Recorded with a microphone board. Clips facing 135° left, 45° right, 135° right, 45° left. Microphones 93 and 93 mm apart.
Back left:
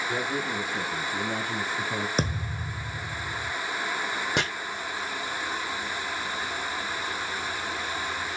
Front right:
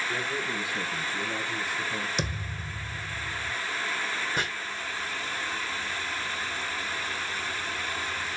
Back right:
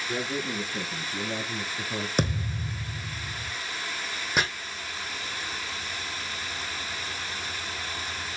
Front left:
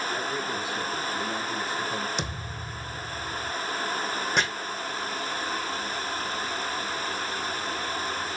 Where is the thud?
175° right, 2.5 m.